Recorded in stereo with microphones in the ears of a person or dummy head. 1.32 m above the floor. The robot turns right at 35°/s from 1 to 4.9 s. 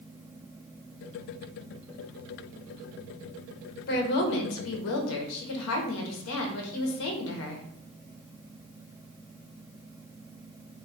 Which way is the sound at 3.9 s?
55° left.